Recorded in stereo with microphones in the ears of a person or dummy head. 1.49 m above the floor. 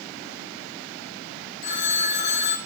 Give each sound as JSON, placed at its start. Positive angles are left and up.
{"t": 1.6, "sound": "a phone ringing", "side_deg": 35, "distance_m": 5.0}